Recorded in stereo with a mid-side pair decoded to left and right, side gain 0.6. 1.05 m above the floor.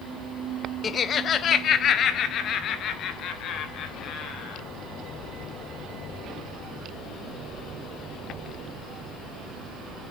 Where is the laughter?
30° left, 0.7 m; by 4.6 s 55° left, 5 m.